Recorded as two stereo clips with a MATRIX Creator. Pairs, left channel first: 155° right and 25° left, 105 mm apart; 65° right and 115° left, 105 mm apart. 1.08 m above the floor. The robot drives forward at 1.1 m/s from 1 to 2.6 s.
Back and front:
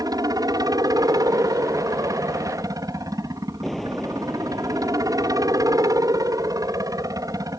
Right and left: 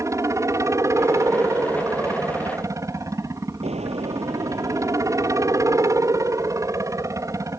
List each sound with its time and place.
0.0 s a helicopter: 60° left; by 7.6 s 65° left
3.6 s an explosion: 115° left